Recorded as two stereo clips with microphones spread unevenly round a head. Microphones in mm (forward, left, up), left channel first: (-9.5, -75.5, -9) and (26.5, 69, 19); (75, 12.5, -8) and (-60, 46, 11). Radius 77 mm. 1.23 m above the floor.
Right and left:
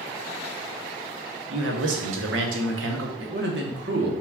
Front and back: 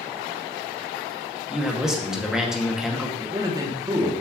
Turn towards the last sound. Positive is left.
turn(degrees=100)